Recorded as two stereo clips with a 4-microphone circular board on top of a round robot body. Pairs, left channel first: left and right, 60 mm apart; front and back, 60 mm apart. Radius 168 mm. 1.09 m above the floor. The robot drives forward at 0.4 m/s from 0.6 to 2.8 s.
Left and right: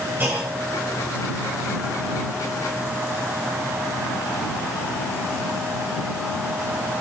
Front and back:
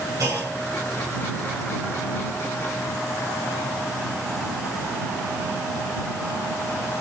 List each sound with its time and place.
0.2 s a clunk: 145° right, 3 m